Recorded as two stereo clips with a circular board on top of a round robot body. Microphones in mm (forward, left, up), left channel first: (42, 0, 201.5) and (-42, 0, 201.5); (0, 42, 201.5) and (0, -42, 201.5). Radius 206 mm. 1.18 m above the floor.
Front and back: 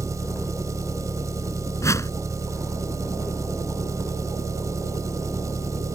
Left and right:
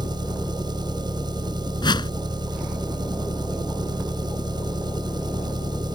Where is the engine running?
125° right.